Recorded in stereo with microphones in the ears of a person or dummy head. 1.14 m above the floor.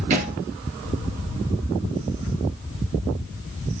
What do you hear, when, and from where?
0.1 s a thud: 40° right (ahead or behind), 5.5 m